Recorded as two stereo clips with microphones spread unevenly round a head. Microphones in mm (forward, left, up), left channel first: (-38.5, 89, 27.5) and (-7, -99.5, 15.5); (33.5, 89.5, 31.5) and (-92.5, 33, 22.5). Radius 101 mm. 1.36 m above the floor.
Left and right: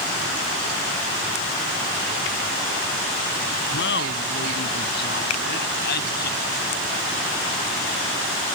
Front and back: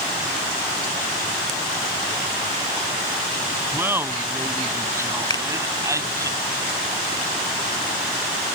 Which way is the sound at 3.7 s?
130° left.